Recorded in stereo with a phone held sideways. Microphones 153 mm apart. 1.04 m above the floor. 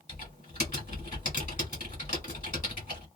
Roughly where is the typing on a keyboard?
Left.